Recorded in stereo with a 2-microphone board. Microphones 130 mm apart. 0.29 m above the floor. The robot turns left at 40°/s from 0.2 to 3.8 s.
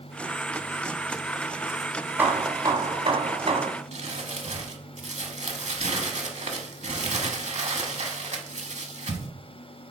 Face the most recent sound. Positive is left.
turn(degrees=-65)  # may be behind; listen again after turning